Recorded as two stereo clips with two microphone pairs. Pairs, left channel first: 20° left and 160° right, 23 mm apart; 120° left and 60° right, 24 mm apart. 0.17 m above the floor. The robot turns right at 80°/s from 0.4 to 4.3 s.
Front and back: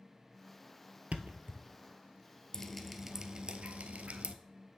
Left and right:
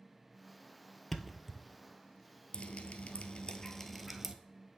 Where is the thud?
170° right, 0.6 m; by 1.6 s 130° right, 0.6 m.